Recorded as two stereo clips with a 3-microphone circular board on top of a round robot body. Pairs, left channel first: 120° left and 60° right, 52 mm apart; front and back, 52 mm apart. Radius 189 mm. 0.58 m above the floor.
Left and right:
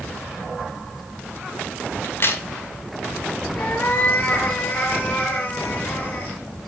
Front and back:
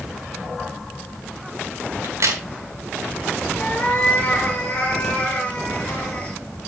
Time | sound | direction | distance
2.0 | a crack | 160° left | 2.5 m
3.6 | a cat meowing | 70° left | 6 m